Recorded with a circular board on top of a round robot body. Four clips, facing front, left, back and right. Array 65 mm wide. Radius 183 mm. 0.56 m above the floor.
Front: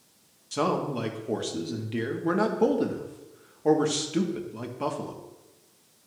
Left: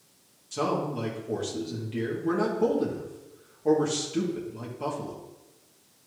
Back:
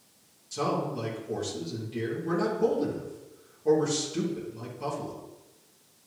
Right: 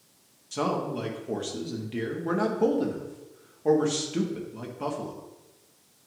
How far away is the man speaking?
About 1.5 m.